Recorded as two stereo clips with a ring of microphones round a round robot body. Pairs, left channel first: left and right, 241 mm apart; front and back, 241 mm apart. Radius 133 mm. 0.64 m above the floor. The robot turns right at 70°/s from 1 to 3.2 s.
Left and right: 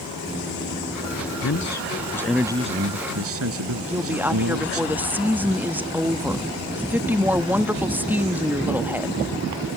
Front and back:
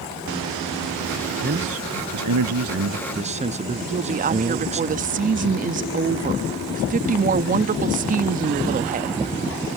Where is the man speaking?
120° left; by 4.8 s 115° right.